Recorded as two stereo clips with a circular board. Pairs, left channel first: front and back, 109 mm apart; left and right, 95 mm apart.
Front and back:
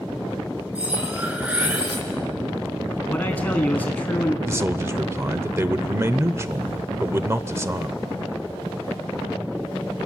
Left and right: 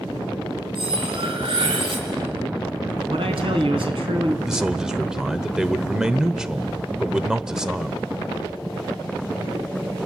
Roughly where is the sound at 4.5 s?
Behind.